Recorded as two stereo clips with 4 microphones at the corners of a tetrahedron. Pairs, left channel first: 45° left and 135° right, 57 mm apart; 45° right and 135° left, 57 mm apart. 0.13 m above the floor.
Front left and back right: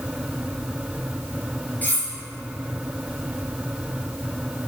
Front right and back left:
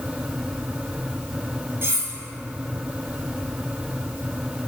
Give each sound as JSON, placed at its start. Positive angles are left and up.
{"t": 1.8, "sound": "cutlery clinking", "azimuth_deg": 100, "distance_m": 1.9}